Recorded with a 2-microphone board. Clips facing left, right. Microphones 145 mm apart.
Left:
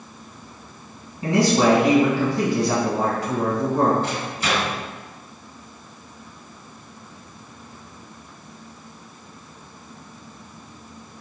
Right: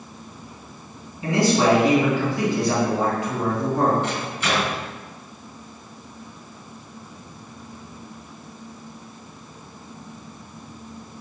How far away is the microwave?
About 2.0 m.